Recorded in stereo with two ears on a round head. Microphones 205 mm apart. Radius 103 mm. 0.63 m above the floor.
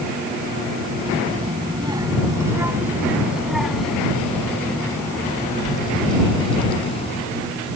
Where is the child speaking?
25° right (ahead or behind); by 7.2 s 30° left (ahead or behind).